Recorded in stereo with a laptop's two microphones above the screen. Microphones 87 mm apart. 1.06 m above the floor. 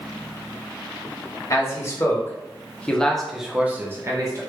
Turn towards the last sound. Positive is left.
turn(degrees=-40)  # may be behind; listen again after turning